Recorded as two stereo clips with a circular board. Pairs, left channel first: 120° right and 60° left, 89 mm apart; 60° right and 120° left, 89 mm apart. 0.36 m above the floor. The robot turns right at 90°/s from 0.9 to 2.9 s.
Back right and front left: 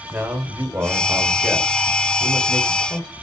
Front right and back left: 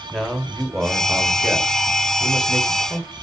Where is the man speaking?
30° left, 0.8 m; by 3.1 s 150° right, 0.8 m.